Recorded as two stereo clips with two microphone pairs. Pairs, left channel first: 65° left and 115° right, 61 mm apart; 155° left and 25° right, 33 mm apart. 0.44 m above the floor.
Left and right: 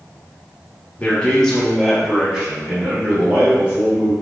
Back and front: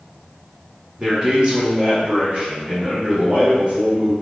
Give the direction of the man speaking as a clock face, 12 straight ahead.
11 o'clock.